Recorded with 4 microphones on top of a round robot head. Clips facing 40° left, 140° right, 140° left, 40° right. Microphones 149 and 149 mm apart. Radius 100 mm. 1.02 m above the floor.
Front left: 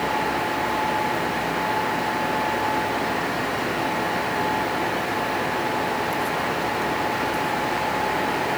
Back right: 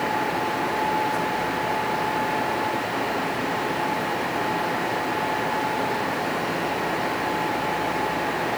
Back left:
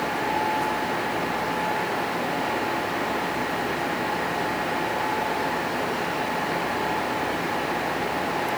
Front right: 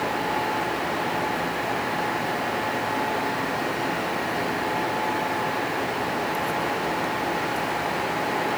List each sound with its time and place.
Only background noise.